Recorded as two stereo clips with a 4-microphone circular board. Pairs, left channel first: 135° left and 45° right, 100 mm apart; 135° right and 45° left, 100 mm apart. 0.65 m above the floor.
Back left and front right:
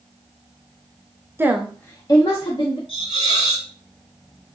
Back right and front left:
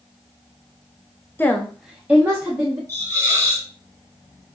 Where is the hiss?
105° left, 1.8 m.